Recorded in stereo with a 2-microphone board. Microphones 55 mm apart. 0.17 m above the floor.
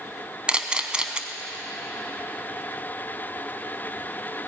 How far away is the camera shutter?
About 0.8 m.